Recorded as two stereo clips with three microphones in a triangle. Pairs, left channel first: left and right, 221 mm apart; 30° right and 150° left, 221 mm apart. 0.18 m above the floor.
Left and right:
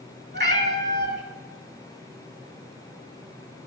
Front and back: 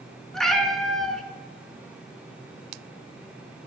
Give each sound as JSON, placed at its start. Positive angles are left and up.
{"t": 0.3, "sound": "a cat meowing", "azimuth_deg": -120, "distance_m": 0.5}